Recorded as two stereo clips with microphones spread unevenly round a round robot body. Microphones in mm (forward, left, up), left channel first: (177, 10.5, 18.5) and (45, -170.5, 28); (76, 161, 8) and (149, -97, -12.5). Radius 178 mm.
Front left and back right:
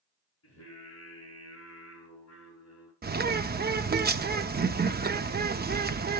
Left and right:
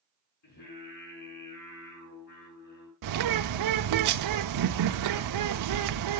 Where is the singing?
105° left, 7 m.